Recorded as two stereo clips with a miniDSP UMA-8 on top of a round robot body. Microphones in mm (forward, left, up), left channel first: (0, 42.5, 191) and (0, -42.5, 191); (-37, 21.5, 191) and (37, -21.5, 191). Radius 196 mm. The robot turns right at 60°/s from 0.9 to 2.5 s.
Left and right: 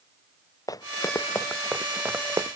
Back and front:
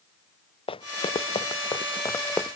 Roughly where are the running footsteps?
Behind left.